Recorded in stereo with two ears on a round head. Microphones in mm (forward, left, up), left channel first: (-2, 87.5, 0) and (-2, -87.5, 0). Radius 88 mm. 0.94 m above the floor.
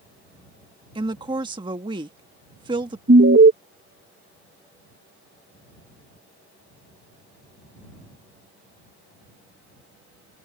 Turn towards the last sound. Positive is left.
turn(degrees=-55)  # may be behind; listen again after turning